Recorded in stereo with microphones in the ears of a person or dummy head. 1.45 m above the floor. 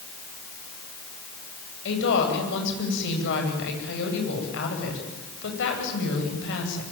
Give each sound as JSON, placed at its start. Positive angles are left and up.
{"t": 1.9, "sound": "a woman speaking", "side_deg": 65, "distance_m": 9.0}